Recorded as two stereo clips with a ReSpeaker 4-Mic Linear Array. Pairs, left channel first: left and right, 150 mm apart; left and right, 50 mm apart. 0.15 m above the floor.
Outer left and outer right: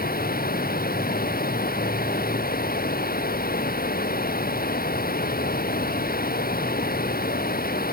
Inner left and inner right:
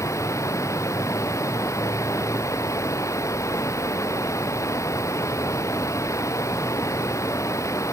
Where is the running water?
85° left.